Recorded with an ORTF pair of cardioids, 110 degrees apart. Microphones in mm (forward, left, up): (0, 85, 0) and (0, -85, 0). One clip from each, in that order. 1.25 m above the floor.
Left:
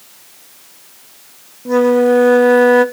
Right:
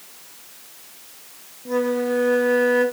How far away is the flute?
About 0.7 m.